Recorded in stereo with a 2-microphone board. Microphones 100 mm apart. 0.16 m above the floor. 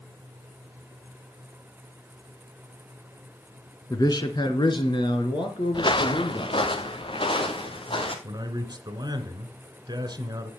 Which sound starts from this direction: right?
A man speaking, at 8.2 s.